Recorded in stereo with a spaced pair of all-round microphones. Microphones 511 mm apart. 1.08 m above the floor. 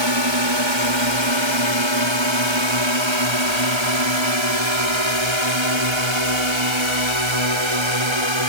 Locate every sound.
0.0 s a drone: 55° right (ahead or behind); by 8.5 s 65° right (ahead or behind)